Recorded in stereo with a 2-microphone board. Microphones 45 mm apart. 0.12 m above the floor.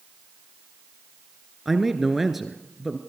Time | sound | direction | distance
1.6 | a man speaking | 5° right (ahead or behind) | 1.5 m